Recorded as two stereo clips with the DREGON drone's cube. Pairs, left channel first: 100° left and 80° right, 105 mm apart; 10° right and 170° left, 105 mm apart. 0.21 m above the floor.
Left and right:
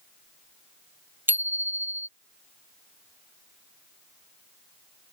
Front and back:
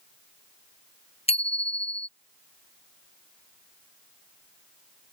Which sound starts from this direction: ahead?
A bicycle bell, at 1.3 s.